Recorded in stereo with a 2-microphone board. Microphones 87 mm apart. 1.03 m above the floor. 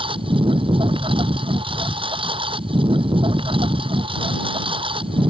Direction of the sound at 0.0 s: 75° right (ahead or behind).